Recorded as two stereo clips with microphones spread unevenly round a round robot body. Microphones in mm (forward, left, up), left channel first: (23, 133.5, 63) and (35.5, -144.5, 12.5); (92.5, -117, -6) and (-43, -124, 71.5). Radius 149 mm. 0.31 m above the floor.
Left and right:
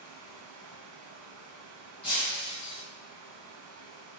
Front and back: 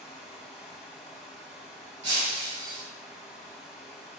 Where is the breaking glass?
170° left, 1.0 m.